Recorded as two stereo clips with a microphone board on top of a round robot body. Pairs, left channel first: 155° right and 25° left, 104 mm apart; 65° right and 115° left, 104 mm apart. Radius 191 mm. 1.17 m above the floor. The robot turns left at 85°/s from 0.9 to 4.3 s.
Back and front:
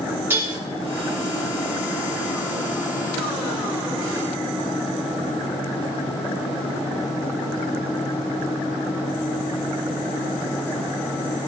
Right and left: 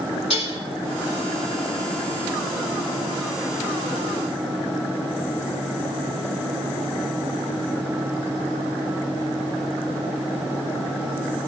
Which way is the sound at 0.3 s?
45° right.